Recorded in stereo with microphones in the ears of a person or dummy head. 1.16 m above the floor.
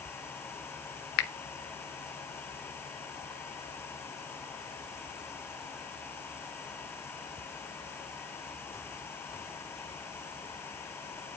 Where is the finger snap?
55° left (ahead or behind), 0.8 m.